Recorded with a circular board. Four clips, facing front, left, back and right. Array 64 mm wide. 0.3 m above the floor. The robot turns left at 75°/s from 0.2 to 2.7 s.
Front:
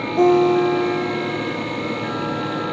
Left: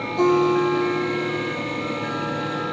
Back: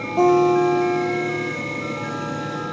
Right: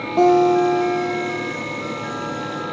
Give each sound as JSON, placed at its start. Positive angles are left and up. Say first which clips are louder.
{"t": 0.2, "sound": "a guitar", "louder": "right 4 dB, front 1 dB", "azimuth_deg": -100, "distance_m": 4.5}